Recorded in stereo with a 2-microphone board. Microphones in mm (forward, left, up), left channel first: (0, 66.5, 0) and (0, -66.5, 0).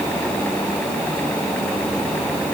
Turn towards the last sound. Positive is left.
No sound to turn to.